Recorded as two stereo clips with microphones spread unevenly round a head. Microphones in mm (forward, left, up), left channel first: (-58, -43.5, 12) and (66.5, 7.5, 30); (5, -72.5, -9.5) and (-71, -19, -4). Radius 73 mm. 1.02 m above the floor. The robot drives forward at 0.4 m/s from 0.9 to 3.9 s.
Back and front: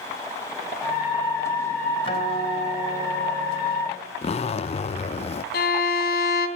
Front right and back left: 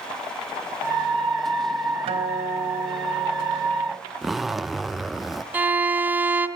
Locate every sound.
2.0 s a guitar: 150° left, 3.5 m; by 4.0 s 155° left, 4.5 m
4.2 s a zipper: 125° right, 0.5 m
5.5 s a violin: 145° right, 2.5 m